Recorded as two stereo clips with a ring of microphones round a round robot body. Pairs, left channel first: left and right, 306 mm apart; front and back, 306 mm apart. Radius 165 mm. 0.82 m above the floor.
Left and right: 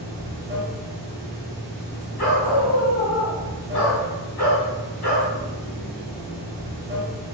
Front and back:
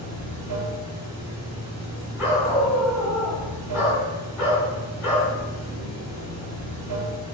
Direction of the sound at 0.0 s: 155° right.